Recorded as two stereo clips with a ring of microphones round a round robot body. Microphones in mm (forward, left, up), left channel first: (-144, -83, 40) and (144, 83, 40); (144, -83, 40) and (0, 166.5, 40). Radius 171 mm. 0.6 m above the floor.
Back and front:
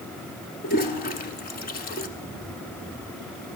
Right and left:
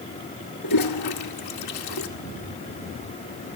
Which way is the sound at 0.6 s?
85° right.